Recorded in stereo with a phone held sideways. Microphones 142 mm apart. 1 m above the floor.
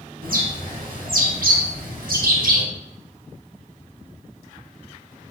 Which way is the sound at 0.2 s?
85° right.